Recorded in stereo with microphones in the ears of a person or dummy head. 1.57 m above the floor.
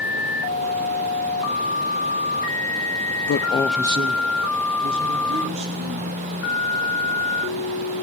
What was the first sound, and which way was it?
A man speaking, 50° left (ahead or behind).